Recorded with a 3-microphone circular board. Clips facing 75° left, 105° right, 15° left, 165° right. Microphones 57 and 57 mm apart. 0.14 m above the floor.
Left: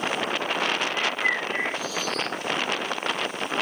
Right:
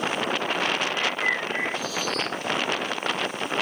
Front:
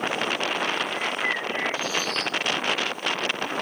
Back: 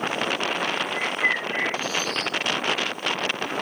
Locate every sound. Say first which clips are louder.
0.9 s a bird: even, back 2 dB; 160° left, 5.5 m